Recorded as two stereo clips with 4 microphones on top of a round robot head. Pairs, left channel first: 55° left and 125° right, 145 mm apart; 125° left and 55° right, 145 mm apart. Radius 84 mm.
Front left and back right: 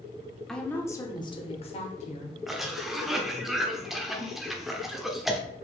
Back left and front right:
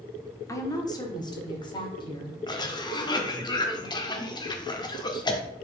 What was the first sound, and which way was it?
A woman speaking, 135° left.